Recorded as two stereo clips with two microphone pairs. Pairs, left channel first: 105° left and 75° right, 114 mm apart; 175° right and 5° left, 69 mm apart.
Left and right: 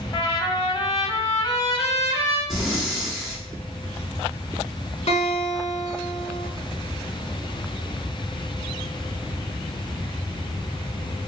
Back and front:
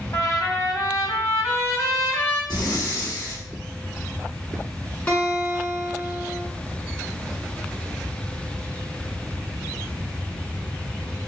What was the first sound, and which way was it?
A trumpet, 155° left.